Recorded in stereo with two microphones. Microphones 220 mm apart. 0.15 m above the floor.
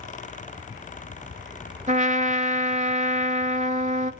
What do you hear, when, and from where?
1.9 s a trumpet: 35° right (ahead or behind), 0.8 m